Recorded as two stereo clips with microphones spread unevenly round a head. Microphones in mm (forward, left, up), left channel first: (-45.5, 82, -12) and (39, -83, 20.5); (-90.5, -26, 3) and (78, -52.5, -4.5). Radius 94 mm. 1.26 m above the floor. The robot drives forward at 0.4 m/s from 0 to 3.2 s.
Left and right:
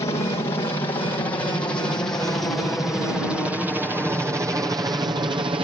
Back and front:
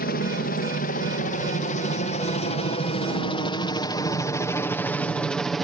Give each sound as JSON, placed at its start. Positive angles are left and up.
{"t": 0.0, "sound": "a helicopter", "azimuth_deg": 180}